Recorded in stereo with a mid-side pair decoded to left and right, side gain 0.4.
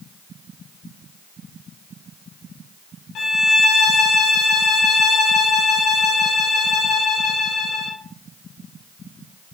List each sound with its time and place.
3.1 s a violin: 65° left, 3 m